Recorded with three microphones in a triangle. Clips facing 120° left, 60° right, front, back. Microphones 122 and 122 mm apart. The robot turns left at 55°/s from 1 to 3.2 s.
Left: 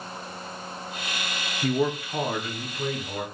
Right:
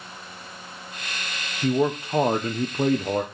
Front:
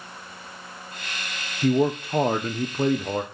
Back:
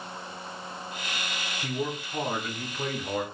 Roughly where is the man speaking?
Ahead.